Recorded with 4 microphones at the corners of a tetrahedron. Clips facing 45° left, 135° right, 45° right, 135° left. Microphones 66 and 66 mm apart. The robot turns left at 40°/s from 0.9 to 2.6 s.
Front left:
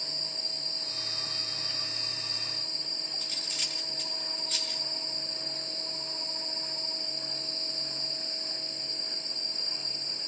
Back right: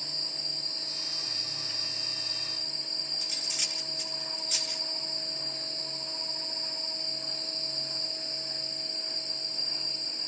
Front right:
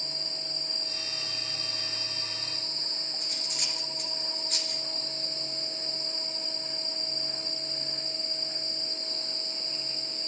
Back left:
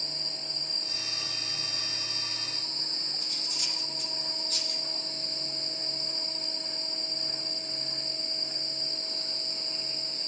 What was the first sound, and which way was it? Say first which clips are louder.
Cutlery clinking: back right 1 dB, front right 2 dB; 50° right.